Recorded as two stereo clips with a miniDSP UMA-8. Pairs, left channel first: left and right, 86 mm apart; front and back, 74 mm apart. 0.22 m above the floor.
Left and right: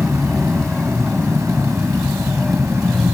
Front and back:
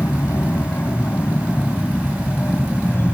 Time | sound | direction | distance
0.0 | an aircraft | 10° left | ?